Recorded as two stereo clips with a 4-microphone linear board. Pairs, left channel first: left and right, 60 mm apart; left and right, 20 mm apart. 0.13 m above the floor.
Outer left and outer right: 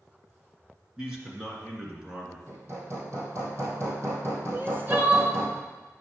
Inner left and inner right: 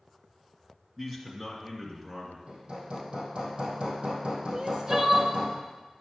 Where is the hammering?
50° right (ahead or behind), 2.5 m.